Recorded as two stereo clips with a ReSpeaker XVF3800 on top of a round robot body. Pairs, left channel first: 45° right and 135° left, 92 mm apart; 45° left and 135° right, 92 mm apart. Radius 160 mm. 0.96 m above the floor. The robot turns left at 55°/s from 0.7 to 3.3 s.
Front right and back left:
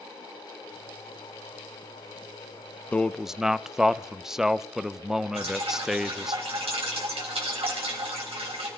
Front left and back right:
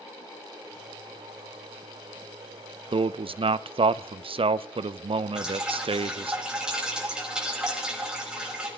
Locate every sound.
2.9 s a man speaking: 120° right, 0.7 m; by 6.3 s 140° right, 0.7 m
5.3 s dripping: 145° left, 4 m